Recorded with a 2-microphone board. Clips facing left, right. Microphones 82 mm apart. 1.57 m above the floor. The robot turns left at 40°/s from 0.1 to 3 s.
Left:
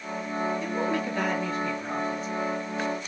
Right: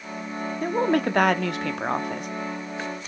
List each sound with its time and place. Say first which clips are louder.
0.6 s a woman speaking: right 5 dB; 50° right, 0.5 m; by 2.3 s 115° right, 0.5 m